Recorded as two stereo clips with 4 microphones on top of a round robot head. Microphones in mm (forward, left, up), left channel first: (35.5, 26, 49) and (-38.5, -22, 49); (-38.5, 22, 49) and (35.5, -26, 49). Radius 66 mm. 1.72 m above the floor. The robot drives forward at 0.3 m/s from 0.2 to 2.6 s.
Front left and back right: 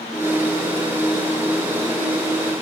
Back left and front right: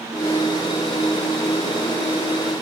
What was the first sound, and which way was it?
Only background noise.